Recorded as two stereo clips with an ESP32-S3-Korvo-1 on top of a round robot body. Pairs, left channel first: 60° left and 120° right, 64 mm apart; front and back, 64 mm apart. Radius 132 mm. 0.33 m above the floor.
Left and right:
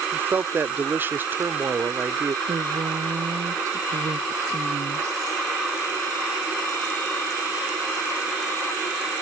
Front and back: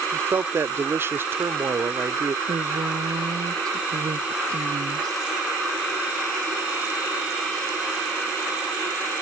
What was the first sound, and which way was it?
A man speaking, 160° right.